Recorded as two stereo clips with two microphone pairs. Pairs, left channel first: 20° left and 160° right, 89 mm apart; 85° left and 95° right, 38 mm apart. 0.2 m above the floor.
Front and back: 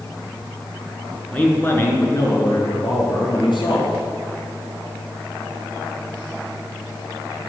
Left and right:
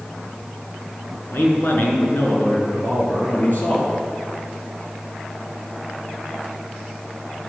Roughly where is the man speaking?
Left.